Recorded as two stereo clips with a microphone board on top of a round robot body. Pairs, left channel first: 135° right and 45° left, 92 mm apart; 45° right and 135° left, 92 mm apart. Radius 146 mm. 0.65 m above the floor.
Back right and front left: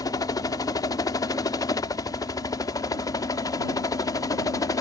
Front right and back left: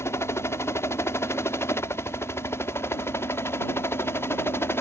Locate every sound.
0.0 s a helicopter: 100° right